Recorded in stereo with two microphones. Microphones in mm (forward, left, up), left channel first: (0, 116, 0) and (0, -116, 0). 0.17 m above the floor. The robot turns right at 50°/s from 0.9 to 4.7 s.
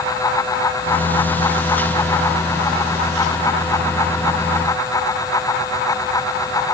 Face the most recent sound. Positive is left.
No sound to turn to.